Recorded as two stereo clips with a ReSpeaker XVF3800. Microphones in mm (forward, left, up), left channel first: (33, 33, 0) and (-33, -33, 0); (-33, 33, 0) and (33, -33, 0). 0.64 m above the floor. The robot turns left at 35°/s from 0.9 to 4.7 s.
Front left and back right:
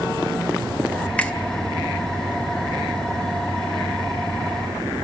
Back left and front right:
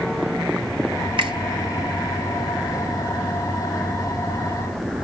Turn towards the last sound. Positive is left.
turn(degrees=-155)